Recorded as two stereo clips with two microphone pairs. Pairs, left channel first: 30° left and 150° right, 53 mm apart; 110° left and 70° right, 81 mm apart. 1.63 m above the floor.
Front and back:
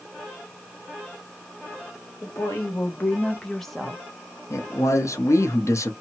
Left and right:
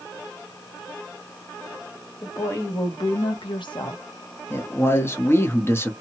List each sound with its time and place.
2.2 s a woman speaking: 50° left, 1.2 m; by 4.0 s 130° left, 0.9 m
4.5 s a man speaking: 50° left, 0.8 m